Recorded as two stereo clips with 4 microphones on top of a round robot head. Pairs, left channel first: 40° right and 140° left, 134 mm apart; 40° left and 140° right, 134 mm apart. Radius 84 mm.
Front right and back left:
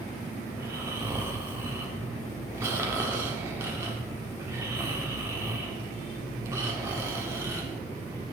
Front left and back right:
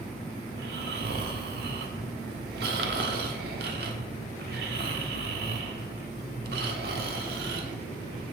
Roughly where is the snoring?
Behind right.